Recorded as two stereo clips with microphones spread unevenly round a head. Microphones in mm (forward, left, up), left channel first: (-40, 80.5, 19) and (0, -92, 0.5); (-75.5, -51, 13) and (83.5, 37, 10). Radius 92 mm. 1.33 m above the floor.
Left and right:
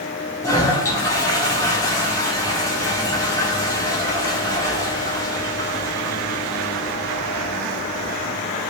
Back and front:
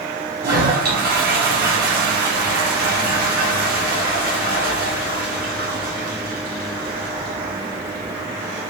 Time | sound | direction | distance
0.4 | a toilet flushing | 40° left | 1.2 m